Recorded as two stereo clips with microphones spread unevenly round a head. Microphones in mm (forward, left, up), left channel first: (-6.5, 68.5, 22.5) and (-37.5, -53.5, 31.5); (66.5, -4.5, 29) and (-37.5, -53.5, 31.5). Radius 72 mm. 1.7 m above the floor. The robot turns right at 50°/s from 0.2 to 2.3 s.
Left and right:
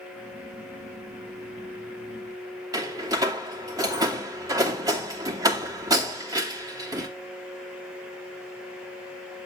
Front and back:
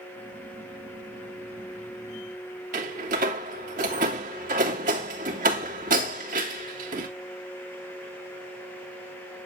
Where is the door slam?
165° right, 3 m.